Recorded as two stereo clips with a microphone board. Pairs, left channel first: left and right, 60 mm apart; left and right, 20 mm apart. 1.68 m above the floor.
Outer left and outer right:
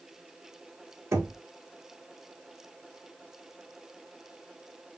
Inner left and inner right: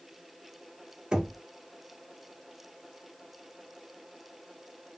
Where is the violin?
I don't hear a violin.